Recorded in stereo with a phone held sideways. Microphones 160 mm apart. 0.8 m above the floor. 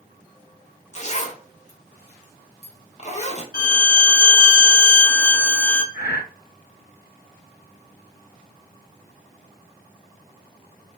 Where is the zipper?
45° left (ahead or behind), 0.8 m.